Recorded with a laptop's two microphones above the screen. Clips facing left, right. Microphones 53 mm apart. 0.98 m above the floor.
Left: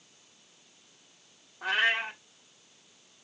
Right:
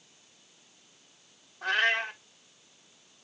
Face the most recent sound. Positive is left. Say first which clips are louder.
# right 1 dB
turn(degrees=10)  # may be behind; listen again after turning